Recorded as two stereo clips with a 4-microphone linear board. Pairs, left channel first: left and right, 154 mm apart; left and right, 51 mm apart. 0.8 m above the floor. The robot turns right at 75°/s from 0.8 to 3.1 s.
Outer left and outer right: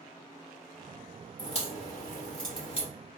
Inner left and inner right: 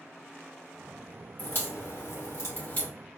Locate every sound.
1.4 s a crack: 35° left (ahead or behind), 2.5 m; by 2.9 s 30° left (ahead or behind), 2.5 m